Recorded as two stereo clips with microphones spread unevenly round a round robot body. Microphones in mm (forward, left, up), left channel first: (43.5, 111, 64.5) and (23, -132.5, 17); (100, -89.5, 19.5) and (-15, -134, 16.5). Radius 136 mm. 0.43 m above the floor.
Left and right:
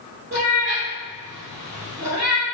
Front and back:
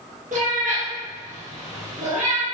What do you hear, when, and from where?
0.3 s a cat meowing: 155° right, 1.6 m